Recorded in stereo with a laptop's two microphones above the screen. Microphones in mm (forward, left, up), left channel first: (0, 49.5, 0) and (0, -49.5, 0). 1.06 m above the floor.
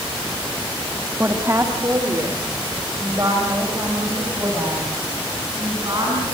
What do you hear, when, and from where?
1.2 s a woman speaking: 25° right (ahead or behind), 1.5 m; by 6.2 s 40° right (ahead or behind), 9 m